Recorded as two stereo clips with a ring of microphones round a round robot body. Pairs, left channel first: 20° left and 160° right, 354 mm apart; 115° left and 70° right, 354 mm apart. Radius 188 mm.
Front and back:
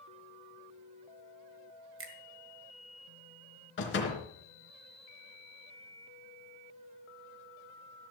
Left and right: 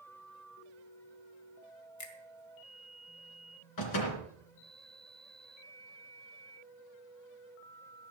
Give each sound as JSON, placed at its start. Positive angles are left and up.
{"t": 2.0, "sound": "a finger snap", "azimuth_deg": 150, "distance_m": 1.9}
{"t": 3.8, "sound": "a door slam", "azimuth_deg": 80, "distance_m": 3.5}